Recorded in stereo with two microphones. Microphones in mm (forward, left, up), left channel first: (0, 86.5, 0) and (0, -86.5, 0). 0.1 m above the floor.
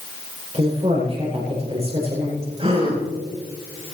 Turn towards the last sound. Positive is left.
turn(degrees=-35)  # may be behind; listen again after turning